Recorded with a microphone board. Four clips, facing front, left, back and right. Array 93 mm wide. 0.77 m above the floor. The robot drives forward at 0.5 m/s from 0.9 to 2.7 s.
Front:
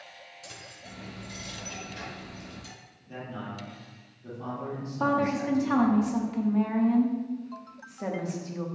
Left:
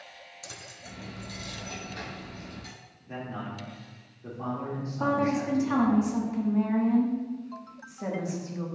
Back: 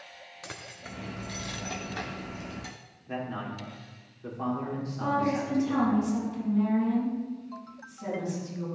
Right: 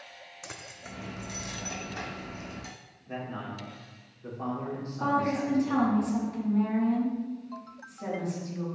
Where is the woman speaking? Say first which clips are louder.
Left 1 dB, front 2 dB; 15° left, 1.4 m.